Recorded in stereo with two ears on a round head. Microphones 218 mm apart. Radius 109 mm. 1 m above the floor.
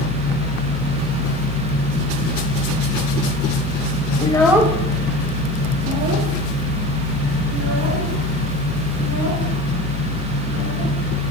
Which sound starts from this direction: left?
A child speaking, at 4.2 s.